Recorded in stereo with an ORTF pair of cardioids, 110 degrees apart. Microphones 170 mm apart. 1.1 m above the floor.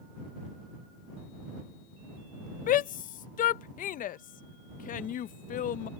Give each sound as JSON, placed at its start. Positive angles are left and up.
{"t": 2.7, "sound": "a shout", "azimuth_deg": 55}